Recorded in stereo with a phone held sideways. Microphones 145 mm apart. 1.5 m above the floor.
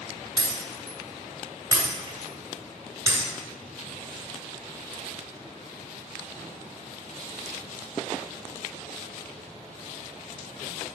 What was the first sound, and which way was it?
Breaking glass, 25° right (ahead or behind).